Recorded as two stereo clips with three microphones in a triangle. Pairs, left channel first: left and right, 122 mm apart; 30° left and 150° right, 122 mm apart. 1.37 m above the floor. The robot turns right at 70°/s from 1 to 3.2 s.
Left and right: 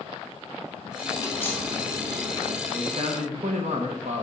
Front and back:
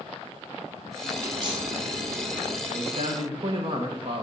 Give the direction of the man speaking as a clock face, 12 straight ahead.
5 o'clock.